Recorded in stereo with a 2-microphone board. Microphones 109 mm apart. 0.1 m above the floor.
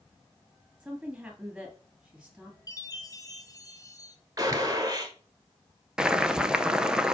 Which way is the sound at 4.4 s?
30° right (ahead or behind).